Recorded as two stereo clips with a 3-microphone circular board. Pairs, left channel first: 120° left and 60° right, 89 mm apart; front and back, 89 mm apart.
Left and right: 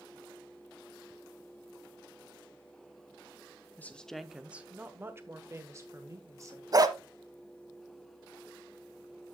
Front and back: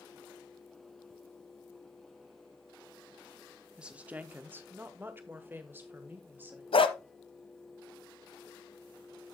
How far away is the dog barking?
About 0.9 m.